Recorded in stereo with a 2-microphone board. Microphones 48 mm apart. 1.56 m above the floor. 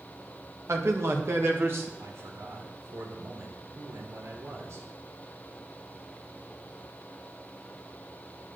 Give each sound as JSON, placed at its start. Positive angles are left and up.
{"t": 0.7, "sound": "a man speaking", "side_deg": -75, "distance_m": 2.0}
{"t": 2.0, "sound": "a man speaking", "side_deg": -70, "distance_m": 4.0}